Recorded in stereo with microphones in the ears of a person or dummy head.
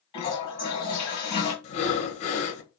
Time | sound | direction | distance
0.1 | a toilet flushing | 20° left (ahead or behind) | 1.1 m
1.6 | breathing | 35° left (ahead or behind) | 1.1 m